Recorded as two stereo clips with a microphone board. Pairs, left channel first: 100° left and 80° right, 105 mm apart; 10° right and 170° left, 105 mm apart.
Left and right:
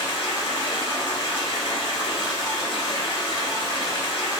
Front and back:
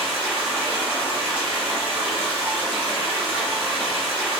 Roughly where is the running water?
Left.